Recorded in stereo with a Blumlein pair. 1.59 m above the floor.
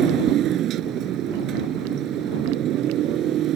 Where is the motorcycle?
30° right.